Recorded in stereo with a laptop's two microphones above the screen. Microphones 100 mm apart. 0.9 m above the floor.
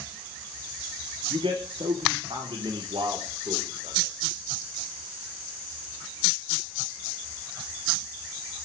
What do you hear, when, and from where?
1.3 s a man speaking: 65° right (ahead or behind), 2 m; by 4.2 s 75° right (ahead or behind), 4 m